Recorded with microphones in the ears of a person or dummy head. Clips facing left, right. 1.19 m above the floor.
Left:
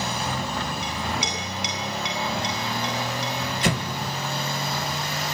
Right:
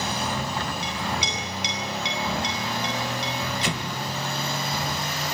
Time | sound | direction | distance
0.8 | a clink | 45° left (ahead or behind) | 9.5 m
3.6 | an explosion | 50° left (ahead or behind) | 1.7 m